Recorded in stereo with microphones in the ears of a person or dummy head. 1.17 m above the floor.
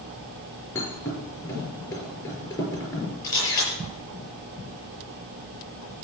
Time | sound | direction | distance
0.8 | a thud | 20° left (ahead or behind) | 5 m
3.2 | a camera shutter | 25° left (ahead or behind) | 6.5 m